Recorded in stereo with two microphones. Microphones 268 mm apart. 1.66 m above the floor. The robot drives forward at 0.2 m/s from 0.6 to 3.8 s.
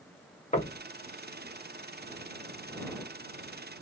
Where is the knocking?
25° left (ahead or behind), 1.0 m.